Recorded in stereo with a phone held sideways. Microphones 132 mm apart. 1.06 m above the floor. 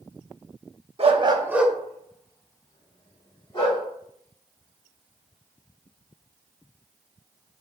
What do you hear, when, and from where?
1.0 s a dog barking: 45° right (ahead or behind), 0.7 m; by 3.8 s 35° left (ahead or behind), 2.5 m